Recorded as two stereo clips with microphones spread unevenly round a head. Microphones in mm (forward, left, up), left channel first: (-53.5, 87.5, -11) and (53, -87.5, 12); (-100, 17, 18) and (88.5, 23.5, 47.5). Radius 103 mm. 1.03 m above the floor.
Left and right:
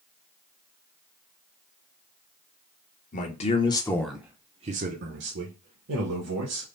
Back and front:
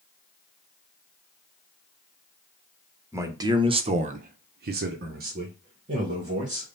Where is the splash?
No splash in this recording.